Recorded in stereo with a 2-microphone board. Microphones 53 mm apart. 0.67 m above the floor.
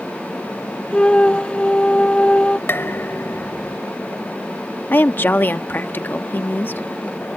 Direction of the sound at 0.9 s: 20° left (ahead or behind).